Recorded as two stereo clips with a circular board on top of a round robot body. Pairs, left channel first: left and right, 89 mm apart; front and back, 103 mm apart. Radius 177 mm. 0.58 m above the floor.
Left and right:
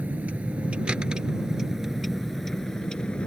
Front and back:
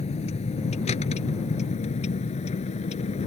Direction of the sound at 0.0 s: 15° right.